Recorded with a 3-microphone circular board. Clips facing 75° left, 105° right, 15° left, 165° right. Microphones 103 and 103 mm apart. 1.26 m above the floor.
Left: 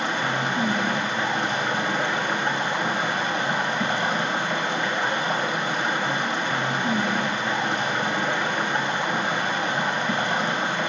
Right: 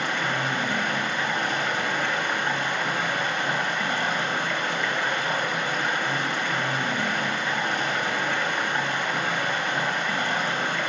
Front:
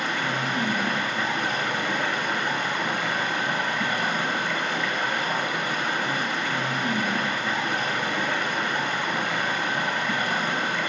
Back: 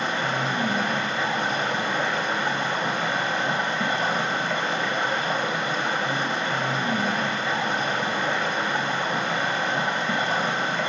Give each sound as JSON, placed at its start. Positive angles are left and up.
{"t": 0.0, "sound": "running water", "azimuth_deg": 140, "distance_m": 1.6}